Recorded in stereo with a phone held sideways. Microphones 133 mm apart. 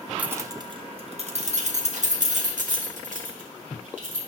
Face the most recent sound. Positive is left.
turn(degrees=-75)  # may be behind; listen again after turning